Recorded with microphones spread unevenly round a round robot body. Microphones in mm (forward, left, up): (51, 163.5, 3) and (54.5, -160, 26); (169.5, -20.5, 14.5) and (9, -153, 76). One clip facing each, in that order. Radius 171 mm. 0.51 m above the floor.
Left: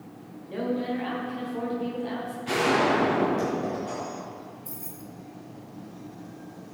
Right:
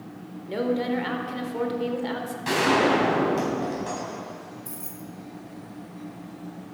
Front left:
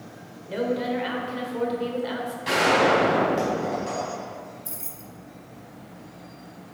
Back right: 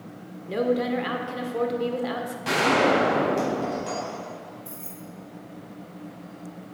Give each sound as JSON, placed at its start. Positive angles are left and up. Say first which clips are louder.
{"t": 0.5, "sound": "a woman speaking", "louder": "right 3 dB, back right 2 dB", "azimuth_deg": -105, "distance_m": 1.6}
{"t": 2.5, "sound": "a gunshot", "louder": "right 2 dB, even", "azimuth_deg": -105, "distance_m": 4.0}
{"t": 4.7, "sound": "keys jangling", "louder": "right 2 dB, back right 2 dB", "azimuth_deg": 5, "distance_m": 1.3}